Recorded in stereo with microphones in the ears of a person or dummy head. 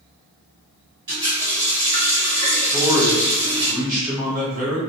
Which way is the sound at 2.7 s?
20° right (ahead or behind).